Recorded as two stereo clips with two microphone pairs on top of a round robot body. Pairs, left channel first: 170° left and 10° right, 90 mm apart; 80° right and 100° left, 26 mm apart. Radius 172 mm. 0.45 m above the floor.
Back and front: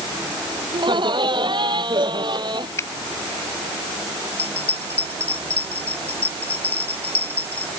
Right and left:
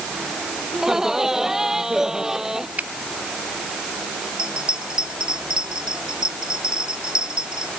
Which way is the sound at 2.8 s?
110° left.